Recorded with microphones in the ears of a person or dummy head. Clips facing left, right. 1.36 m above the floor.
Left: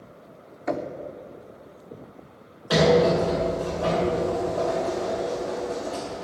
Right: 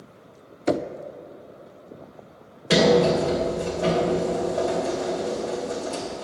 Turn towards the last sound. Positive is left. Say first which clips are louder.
# right 1 dB
turn(degrees=-30)  # may be behind; listen again after turning